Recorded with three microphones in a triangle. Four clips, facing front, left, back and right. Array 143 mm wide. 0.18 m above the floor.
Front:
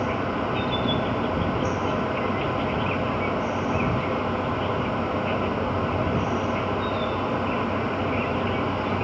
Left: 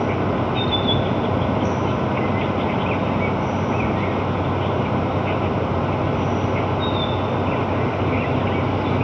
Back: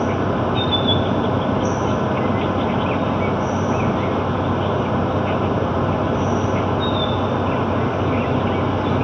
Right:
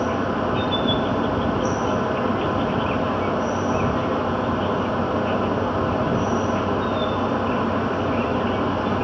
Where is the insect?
125° left.